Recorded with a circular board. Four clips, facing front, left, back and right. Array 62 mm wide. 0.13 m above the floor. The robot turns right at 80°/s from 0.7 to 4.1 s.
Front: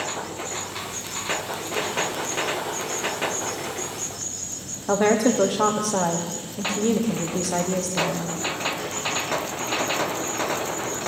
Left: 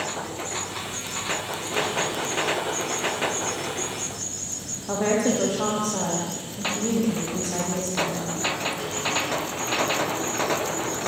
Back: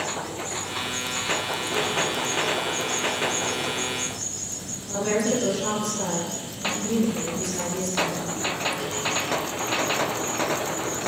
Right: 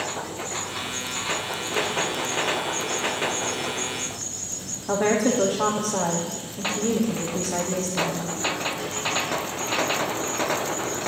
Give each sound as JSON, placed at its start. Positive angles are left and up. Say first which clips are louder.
{"t": 4.9, "sound": "a woman speaking", "louder": "right 1 dB, front 5 dB", "azimuth_deg": -10, "distance_m": 6.0}